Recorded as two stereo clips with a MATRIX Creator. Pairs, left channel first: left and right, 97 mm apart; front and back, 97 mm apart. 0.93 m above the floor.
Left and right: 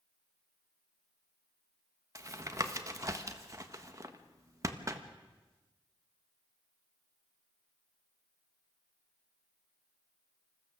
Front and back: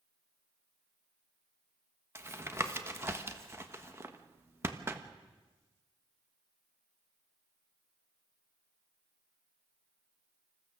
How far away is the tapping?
About 1.3 m.